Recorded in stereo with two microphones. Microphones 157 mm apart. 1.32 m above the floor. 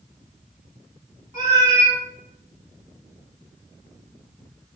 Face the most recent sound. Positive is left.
turn(degrees=-25)  # may be behind; listen again after turning